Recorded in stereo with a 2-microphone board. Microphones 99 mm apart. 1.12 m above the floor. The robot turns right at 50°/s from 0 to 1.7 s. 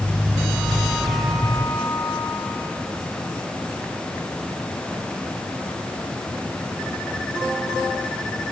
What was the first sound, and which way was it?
Only background noise.